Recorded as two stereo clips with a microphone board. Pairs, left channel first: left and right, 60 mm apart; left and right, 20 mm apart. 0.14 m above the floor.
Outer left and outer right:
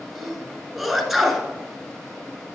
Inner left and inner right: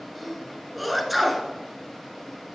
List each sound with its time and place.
0.1 s a sneeze: centre (ahead or behind), 1.6 m